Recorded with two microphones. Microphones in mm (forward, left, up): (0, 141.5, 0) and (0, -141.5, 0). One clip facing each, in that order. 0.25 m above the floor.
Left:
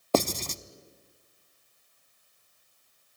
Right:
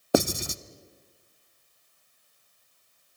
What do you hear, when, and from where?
0.1 s writing: 10° right (ahead or behind), 0.6 m